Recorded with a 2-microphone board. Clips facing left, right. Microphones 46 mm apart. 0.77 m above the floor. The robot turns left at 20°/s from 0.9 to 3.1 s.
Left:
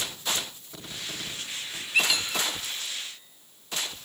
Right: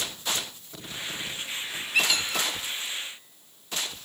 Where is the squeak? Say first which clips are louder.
Even; 5° left (ahead or behind), 2.5 m; by 2.5 s 5° right (ahead or behind), 2.5 m.